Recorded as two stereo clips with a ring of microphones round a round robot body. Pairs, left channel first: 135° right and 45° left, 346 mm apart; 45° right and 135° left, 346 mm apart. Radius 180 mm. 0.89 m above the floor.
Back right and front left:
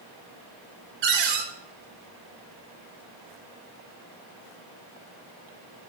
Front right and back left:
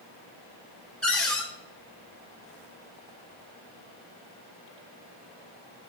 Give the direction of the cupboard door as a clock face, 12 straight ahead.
11 o'clock.